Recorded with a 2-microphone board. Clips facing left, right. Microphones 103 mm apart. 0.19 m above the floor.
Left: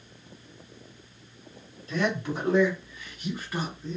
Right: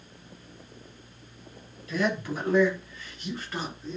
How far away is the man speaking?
About 1.3 m.